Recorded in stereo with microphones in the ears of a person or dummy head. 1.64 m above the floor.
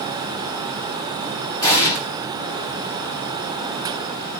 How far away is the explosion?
About 1.3 m.